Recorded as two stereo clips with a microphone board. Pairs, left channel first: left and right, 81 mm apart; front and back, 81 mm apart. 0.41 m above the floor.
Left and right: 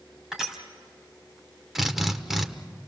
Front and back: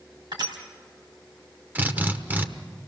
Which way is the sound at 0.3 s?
175° right.